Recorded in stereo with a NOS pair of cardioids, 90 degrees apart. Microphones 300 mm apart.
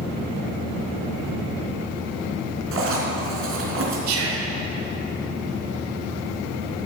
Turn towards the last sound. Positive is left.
turn(degrees=-65)